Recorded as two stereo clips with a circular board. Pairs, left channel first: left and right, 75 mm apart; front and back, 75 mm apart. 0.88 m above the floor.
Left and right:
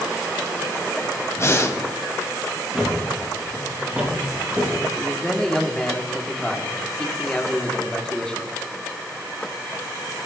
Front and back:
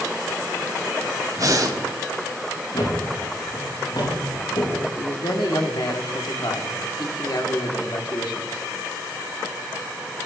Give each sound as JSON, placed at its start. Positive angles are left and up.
{"t": 1.4, "sound": "breathing", "azimuth_deg": 145, "distance_m": 1.9}
{"t": 2.7, "sound": "a thud", "azimuth_deg": -15, "distance_m": 6.5}
{"t": 5.0, "sound": "a man speaking", "azimuth_deg": 10, "distance_m": 2.0}